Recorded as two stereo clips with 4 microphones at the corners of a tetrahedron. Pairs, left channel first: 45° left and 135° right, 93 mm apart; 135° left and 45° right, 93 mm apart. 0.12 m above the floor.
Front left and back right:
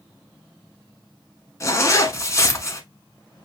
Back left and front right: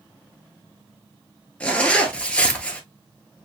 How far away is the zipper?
About 0.9 m.